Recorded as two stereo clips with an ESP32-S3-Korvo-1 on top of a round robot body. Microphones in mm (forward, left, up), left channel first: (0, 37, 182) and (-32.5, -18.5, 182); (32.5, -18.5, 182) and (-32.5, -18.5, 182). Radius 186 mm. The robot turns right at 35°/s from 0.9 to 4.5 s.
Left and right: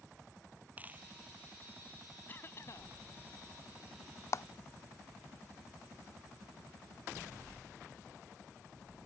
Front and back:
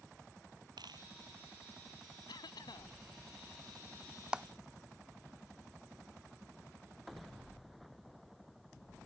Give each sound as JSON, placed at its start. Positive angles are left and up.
{"t": 0.8, "sound": "a dropped coin", "azimuth_deg": 175}
{"t": 2.3, "sound": "a cough", "azimuth_deg": 0}
{"t": 4.3, "sound": "a clap", "azimuth_deg": 100}